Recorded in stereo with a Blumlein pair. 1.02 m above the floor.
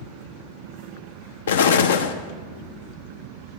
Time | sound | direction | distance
1.5 | an explosion | 60° left | 0.5 m